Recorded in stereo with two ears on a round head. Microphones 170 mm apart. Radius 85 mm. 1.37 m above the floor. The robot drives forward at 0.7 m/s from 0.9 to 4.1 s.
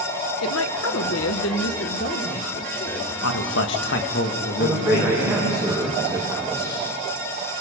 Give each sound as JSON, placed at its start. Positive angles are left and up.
{"t": 0.4, "sound": "a woman speaking", "side_deg": 85, "distance_m": 1.0}
{"t": 3.2, "sound": "a man speaking", "side_deg": 80, "distance_m": 1.6}
{"t": 4.6, "sound": "a man speaking", "side_deg": -5, "distance_m": 5.0}